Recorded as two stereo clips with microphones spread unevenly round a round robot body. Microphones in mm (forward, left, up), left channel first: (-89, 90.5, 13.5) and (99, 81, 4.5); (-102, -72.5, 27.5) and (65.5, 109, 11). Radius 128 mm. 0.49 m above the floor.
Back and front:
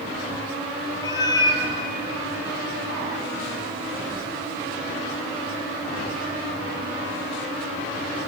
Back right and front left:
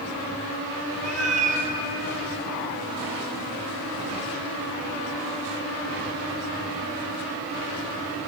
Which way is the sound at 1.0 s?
110° left.